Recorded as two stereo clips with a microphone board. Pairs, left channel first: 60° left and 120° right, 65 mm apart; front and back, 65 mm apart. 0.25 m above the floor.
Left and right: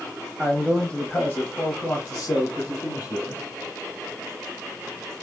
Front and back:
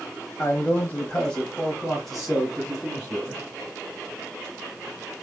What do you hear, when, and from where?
0.4 s a man speaking: 25° right, 1.0 m; by 3.4 s 100° left, 2 m